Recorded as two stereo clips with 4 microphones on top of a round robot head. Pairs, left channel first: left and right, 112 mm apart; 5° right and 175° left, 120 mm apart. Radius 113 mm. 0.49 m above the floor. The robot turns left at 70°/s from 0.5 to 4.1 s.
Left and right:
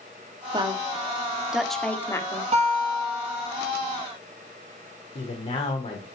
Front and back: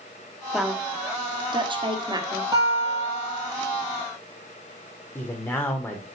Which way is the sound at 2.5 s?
115° right.